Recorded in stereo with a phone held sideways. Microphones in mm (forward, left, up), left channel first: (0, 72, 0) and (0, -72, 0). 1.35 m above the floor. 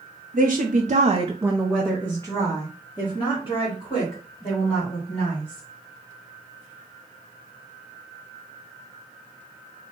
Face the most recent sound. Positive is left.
turn(degrees=45)  # may be behind; listen again after turning